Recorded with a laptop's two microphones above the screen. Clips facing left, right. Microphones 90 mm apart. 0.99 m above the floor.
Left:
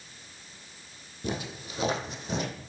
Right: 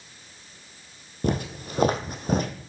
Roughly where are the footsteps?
Right.